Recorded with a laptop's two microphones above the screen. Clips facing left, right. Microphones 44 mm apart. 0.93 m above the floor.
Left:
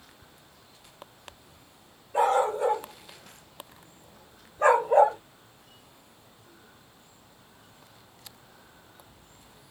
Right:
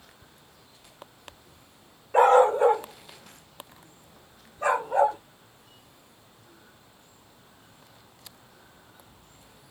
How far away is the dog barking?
About 0.9 m.